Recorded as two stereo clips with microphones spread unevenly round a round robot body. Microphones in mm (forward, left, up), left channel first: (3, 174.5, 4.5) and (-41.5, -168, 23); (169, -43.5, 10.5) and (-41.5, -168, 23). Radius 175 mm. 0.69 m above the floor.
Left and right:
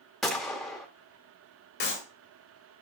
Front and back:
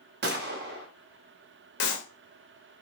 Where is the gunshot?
170° left, 1.1 m.